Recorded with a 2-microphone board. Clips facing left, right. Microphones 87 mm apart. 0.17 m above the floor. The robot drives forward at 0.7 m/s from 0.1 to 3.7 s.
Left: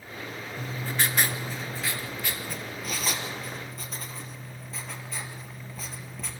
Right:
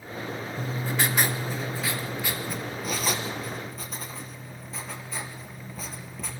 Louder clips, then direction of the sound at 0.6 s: Right 1 dB; 10° right (ahead or behind).